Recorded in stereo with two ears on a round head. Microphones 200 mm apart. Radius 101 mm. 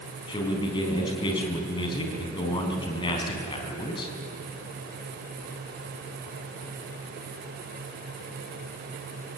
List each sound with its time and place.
0.3 s a man speaking: 20° left (ahead or behind), 4 m